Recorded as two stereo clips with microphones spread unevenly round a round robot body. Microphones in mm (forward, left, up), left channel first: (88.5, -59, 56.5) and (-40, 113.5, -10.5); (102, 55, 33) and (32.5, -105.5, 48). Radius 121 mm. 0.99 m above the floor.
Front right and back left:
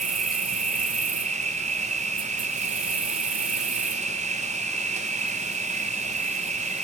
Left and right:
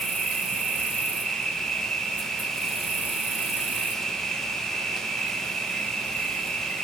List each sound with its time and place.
0.0 s an insect: 150° left, 0.8 m